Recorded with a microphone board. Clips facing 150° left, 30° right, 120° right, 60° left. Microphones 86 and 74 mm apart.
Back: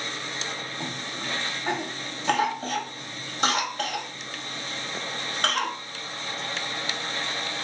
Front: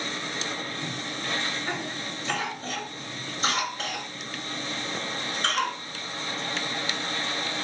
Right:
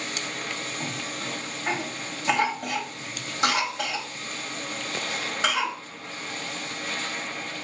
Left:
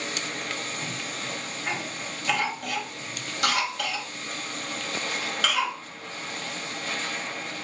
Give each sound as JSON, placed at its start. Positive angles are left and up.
{"t": 0.8, "sound": "a cough", "azimuth_deg": 175, "distance_m": 1.9}